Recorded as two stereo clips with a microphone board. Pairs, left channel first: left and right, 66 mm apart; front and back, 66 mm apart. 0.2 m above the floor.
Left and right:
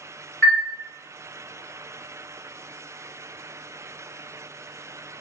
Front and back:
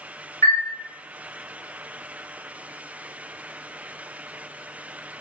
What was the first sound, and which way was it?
A chime, 35° left.